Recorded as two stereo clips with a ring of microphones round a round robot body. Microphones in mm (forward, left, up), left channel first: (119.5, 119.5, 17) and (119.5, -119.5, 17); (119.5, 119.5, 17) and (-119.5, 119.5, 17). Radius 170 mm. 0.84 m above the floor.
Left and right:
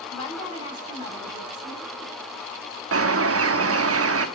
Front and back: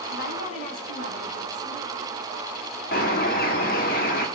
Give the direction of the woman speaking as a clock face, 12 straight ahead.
11 o'clock.